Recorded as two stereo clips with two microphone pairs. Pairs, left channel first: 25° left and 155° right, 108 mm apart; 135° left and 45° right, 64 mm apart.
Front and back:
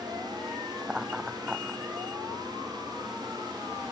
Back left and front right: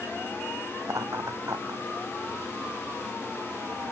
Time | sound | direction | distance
0.8 | laughter | 75° right | ?